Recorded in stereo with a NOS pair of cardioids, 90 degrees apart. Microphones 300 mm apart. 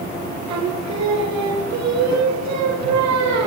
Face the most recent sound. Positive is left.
turn(degrees=-65)